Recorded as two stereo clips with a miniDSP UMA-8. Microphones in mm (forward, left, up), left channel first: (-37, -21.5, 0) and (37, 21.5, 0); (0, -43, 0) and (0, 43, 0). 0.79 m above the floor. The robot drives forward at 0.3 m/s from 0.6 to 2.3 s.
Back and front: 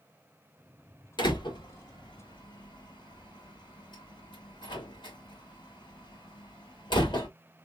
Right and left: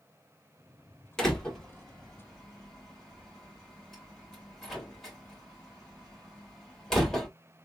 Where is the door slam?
170° right, 1.8 m; by 7.3 s 175° right, 2 m.